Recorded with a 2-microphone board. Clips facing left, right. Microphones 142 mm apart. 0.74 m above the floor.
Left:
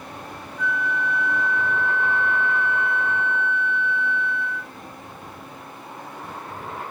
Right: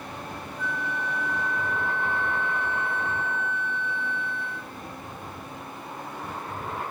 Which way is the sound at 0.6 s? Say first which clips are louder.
Left 6 dB; 30° right (ahead or behind).